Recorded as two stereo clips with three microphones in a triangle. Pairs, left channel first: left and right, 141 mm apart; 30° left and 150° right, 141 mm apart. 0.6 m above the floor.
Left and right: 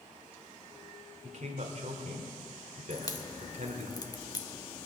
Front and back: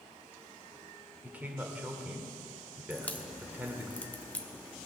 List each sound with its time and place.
1.2 s a man speaking: 75° right, 2 m
2.9 s a crack: 90° left, 1.1 m